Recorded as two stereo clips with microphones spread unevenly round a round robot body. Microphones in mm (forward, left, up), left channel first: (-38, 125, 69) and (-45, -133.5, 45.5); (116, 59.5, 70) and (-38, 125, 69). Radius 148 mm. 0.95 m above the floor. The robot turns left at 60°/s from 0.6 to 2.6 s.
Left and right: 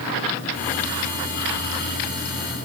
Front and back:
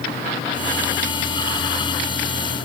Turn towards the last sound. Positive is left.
No sound to turn to.